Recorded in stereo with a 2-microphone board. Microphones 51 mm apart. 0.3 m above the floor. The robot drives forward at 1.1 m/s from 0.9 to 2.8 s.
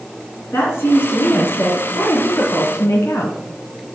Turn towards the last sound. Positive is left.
turn(degrees=70)  # may be behind; listen again after turning